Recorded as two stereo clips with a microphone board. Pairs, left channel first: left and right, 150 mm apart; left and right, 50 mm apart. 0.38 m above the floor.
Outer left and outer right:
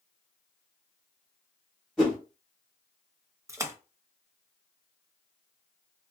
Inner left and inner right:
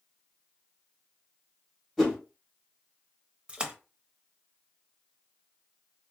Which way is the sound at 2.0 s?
Centre (ahead or behind).